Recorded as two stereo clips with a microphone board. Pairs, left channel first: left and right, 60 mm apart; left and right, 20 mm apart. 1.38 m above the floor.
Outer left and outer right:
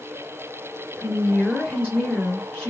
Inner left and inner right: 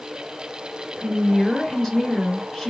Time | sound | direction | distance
1.0 | a woman speaking | 20° left (ahead or behind) | 1.3 m